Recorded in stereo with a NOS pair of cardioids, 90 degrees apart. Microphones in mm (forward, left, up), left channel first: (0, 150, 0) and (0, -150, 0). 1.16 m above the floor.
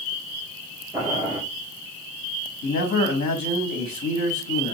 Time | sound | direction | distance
0.9 | boiling | 5° right | 2 m
2.6 | a man speaking | 65° left | 1.4 m